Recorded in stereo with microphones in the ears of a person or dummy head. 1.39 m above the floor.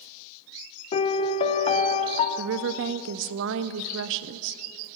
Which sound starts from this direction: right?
A woman speaking, at 2.4 s.